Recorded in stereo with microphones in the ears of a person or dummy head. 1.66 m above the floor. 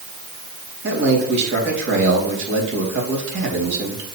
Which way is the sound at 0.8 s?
65° right (ahead or behind).